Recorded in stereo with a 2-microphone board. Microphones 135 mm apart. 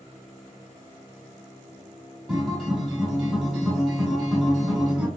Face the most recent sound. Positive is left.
turn(degrees=-5)  # may be behind; listen again after turning